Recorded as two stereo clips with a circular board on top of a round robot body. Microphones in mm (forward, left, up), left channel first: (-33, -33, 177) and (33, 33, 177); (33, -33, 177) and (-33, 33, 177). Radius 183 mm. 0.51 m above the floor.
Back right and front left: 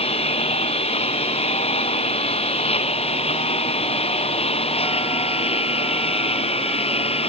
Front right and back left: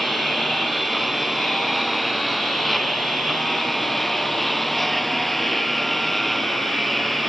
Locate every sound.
0.0 s a lawn mower: 135° right